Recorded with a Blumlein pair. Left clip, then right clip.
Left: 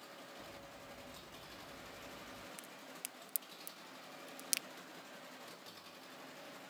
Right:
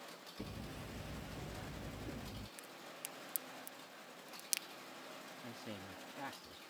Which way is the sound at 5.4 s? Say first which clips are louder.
Right 4 dB; 35° right.